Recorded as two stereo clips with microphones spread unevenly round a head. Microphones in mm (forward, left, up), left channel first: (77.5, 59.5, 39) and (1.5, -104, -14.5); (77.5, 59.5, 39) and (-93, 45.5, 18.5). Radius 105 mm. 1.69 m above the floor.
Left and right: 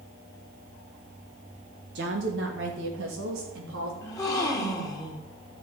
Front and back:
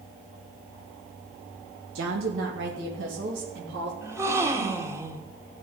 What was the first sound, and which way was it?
A woman speaking, 155° right.